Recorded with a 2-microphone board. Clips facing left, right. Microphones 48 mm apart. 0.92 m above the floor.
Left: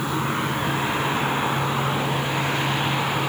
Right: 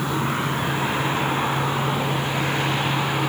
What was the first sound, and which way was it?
Only background noise.